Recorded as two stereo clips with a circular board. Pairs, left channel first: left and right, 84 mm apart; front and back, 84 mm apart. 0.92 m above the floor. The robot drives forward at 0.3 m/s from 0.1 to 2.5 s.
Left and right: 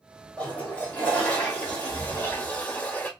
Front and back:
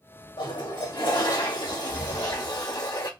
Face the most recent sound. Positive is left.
turn(degrees=25)